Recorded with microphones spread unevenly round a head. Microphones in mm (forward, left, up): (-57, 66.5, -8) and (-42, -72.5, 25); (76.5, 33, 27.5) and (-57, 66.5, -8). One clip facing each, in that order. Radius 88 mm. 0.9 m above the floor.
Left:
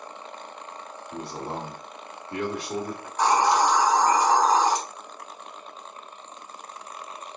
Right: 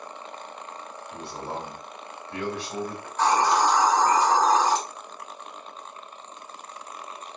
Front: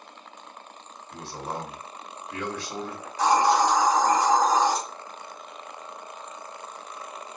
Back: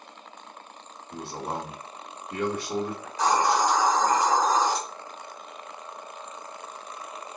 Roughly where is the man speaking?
Behind left.